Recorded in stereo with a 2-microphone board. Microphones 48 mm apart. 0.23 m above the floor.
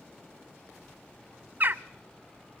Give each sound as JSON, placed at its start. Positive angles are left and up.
{"t": 1.6, "sound": "a bird", "side_deg": -40, "distance_m": 0.6}